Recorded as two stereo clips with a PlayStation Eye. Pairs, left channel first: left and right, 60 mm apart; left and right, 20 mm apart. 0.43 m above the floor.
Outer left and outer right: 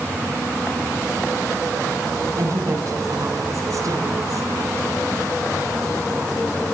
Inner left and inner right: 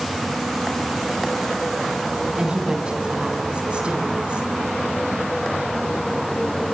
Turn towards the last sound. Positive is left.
turn(degrees=-65)  # may be behind; listen again after turning